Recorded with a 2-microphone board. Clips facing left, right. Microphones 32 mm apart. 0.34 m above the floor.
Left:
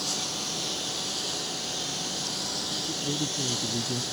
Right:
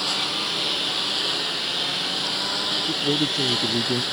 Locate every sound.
0.0 s a lawn mower: 45° right (ahead or behind)
2.9 s a man speaking: 80° right